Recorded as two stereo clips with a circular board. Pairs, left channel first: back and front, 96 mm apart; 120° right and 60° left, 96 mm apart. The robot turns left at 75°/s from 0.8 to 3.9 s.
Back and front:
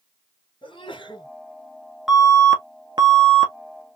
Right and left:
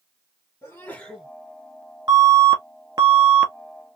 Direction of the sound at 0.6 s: Straight behind.